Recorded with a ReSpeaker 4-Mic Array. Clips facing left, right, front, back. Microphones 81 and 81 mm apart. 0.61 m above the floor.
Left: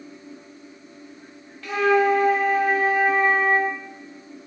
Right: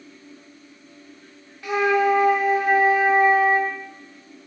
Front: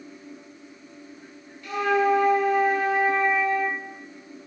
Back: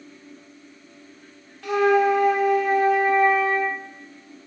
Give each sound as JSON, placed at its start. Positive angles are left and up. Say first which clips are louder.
{"t": 1.6, "sound": "a flute", "louder": "even, back 4 dB", "azimuth_deg": -165, "distance_m": 0.5}